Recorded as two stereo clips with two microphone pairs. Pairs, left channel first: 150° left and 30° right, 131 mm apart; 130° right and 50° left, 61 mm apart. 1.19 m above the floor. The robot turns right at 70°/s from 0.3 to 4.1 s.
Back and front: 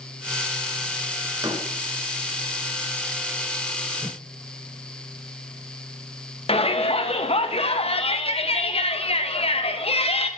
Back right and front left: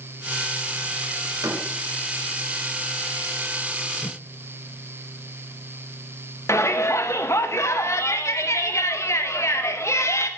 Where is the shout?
170° right, 1.5 m.